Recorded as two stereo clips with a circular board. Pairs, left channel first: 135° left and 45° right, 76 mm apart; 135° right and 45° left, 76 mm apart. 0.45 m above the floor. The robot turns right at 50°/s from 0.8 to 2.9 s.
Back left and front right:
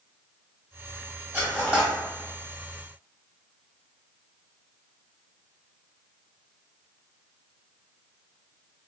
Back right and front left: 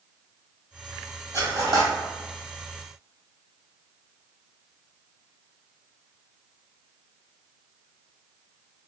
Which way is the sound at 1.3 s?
20° left.